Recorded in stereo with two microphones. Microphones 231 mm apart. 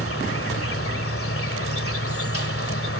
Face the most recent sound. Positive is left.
turn(degrees=70)  # may be behind; listen again after turning